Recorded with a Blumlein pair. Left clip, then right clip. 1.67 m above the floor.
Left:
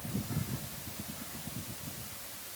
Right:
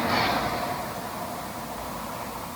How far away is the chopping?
No chopping in this recording.